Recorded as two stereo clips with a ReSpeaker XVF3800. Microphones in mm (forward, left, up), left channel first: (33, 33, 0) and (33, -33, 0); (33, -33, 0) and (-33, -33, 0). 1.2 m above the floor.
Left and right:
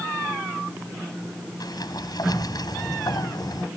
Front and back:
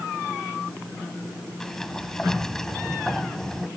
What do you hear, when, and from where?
1.6 s a sliding door: 85° left